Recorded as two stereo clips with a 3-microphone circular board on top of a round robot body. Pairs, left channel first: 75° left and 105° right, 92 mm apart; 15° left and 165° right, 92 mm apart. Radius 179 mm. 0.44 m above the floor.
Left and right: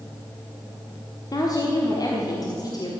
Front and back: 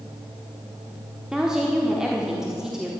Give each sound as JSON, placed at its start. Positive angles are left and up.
{"t": 1.3, "sound": "a woman speaking", "azimuth_deg": 115, "distance_m": 1.6}